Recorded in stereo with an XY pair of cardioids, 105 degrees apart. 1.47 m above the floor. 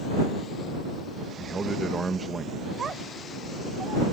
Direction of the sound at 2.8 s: 45° right.